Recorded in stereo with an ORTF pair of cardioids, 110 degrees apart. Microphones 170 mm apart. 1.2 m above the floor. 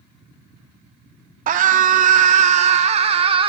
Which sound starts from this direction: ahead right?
A scream, at 1.5 s.